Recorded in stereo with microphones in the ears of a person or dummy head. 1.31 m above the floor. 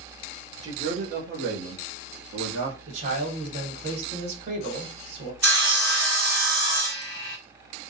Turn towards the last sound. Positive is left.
turn(degrees=-55)  # may be behind; listen again after turning